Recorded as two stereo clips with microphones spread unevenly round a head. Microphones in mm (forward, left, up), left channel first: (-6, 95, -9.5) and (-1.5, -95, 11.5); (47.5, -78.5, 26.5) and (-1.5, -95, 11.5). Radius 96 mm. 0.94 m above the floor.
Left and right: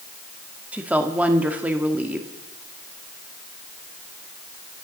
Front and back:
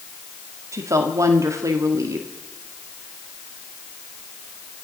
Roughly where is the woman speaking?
Behind.